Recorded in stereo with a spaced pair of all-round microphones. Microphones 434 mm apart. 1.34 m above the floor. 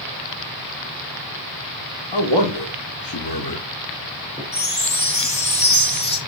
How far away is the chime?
About 1.6 m.